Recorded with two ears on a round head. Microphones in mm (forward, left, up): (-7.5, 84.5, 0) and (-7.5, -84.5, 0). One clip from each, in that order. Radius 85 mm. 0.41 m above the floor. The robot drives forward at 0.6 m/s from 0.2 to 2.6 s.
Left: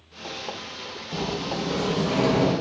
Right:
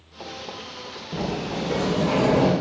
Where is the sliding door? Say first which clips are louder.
Even; 5° left (ahead or behind), 0.5 m; by 2.5 s centre (ahead or behind), 1.2 m.